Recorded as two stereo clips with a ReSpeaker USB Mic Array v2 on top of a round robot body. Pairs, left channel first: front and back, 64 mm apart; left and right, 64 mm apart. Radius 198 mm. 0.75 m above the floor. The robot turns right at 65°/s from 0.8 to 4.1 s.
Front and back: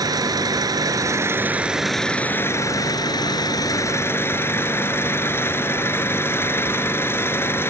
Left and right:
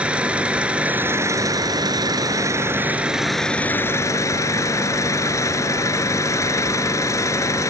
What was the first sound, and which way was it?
An engine running, 160° right.